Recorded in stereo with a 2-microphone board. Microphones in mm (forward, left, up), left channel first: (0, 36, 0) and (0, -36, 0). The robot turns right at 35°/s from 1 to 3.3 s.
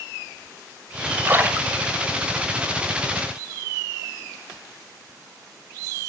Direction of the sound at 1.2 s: 30° right (ahead or behind).